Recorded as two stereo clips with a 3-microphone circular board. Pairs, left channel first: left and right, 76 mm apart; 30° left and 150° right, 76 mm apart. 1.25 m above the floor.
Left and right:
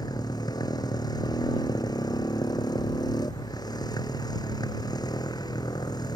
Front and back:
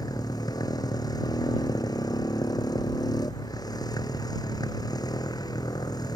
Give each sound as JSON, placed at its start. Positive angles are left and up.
{"t": 0.0, "sound": "a motorcycle", "azimuth_deg": 60}